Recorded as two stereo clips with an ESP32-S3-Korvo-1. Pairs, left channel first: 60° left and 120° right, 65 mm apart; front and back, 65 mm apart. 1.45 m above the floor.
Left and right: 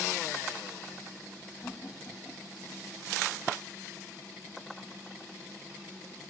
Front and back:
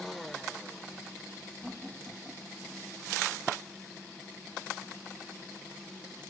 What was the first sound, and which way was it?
Laughter, 110° left.